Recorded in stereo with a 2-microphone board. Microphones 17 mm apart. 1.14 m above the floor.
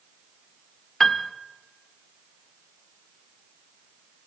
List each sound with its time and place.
1.0 s a piano: 25° left (ahead or behind), 1.0 m